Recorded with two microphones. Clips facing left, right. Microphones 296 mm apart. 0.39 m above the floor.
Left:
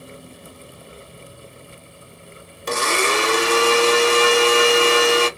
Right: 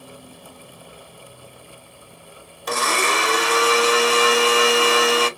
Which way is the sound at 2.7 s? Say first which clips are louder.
Left 2 dB; 30° left (ahead or behind).